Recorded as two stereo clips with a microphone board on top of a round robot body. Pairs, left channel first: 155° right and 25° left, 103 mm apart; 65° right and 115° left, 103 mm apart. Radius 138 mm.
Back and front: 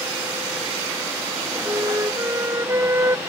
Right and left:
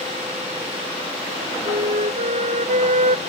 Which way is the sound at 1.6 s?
90° left.